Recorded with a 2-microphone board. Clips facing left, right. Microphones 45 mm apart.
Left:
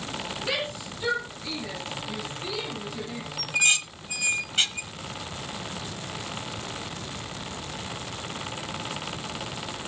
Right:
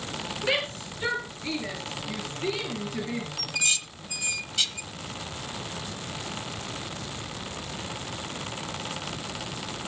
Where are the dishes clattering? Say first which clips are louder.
Left 7 dB; 35° left (ahead or behind), 1.1 m.